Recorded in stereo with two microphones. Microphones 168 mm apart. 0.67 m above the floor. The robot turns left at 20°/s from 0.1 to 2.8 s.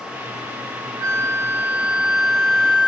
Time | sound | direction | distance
1.0 | a flute | 155° right | 2.0 m